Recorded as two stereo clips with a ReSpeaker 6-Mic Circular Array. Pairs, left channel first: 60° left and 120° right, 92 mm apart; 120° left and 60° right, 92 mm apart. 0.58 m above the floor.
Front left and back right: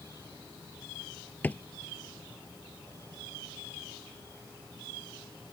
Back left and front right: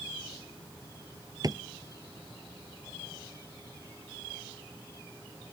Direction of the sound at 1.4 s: 10° right.